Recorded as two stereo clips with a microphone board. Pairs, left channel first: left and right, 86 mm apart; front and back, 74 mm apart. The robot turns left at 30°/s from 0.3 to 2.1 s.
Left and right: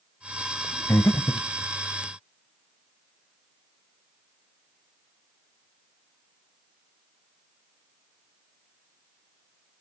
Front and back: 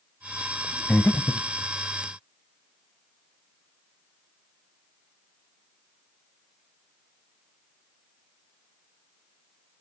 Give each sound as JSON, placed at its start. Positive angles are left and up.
{"t": 0.9, "sound": "breathing", "azimuth_deg": 55, "distance_m": 0.7}